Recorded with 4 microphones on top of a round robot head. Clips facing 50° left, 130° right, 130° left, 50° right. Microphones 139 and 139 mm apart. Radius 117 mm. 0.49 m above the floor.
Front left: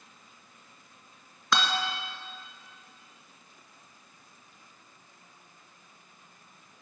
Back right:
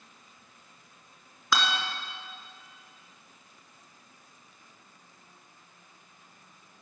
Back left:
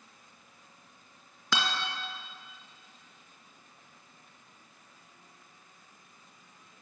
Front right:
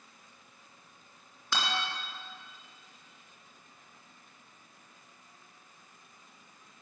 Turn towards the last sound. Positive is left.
turn(degrees=140)